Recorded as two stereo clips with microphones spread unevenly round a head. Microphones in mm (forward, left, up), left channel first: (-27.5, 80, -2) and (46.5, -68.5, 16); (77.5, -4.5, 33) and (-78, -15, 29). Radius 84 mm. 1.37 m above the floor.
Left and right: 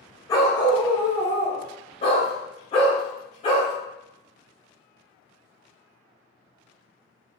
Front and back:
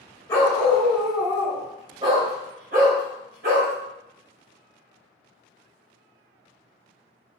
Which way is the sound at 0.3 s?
55° left.